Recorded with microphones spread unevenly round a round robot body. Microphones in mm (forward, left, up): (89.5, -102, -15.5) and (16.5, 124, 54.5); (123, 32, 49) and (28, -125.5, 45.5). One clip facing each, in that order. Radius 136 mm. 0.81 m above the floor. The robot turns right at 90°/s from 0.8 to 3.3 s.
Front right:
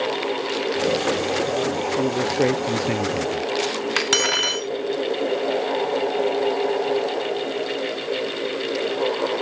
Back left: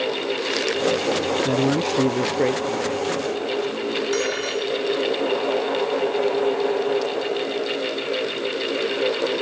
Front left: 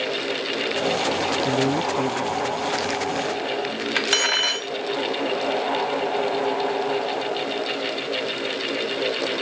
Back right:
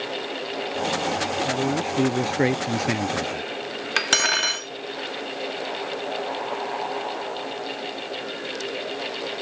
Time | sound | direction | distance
1.4 | a man speaking | 120° left | ?
4.0 | cutlery clinking | 75° right | ?